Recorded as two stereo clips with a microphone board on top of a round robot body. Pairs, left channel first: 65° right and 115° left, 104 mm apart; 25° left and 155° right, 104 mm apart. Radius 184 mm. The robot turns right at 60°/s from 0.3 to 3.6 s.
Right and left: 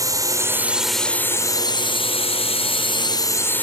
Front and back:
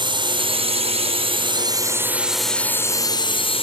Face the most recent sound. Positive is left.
turn(degrees=5)